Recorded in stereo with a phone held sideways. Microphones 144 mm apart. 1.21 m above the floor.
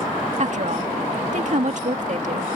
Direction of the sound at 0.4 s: 60° right (ahead or behind).